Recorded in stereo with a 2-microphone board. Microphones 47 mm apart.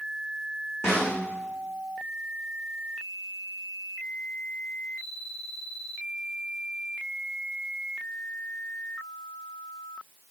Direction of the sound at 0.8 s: 70° left (ahead or behind).